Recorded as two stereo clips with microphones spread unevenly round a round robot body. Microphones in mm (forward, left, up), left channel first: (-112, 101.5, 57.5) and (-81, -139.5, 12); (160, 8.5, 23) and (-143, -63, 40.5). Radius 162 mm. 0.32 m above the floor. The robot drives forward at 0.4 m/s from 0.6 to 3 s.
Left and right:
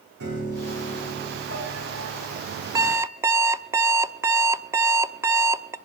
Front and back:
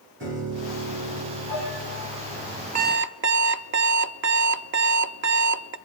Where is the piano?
110° right, 6.5 m; by 2.6 s 115° right, 7 m.